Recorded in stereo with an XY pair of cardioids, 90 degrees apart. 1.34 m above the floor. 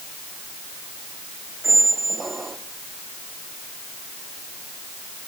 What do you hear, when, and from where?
1.6 s a squeak: 25° right, 1.7 m